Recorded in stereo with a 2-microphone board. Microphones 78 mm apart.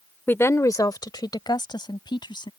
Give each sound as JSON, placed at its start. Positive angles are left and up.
{"t": 0.3, "sound": "a woman speaking", "side_deg": 25}